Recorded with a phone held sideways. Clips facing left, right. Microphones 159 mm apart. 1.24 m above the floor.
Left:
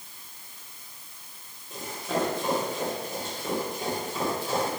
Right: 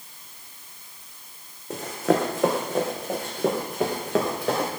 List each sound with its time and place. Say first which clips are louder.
1.7 s running footsteps: right 8 dB; 70° right (ahead or behind), 4 m; by 4.7 s 75° right (ahead or behind), 6 m